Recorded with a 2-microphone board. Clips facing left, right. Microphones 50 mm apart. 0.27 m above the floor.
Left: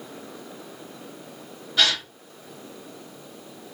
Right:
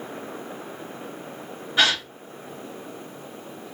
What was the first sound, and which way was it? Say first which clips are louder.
A gasp: right 2 dB; 25° right (ahead or behind).